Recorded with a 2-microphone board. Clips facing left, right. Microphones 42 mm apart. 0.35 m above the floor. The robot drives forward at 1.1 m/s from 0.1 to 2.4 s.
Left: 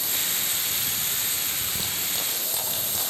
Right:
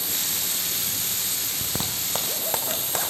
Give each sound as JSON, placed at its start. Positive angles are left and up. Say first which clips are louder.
{"t": 1.6, "sound": "a zipper", "louder": "even", "side_deg": -45, "distance_m": 5.0}